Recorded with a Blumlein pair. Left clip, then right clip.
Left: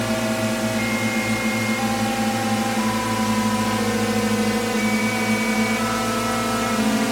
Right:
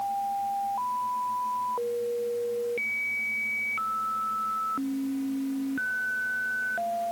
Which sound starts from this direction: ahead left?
A drone, at 0.0 s.